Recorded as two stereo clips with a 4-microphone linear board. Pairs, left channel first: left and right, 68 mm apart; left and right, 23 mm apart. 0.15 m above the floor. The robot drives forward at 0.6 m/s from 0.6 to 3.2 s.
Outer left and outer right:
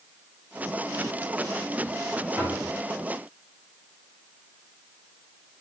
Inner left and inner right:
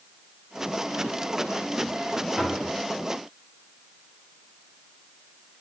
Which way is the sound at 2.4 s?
20° right (ahead or behind).